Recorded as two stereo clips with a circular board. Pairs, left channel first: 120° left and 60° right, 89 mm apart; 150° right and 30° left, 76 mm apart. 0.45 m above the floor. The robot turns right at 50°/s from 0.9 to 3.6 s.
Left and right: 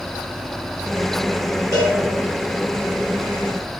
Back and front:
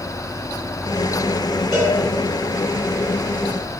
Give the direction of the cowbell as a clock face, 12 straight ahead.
2 o'clock.